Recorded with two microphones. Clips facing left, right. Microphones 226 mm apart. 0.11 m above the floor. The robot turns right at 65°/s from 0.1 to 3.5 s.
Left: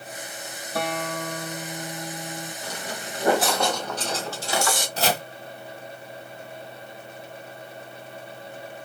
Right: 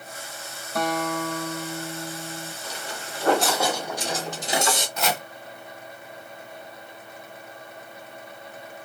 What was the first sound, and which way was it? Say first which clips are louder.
A guitar: right 3 dB; straight ahead.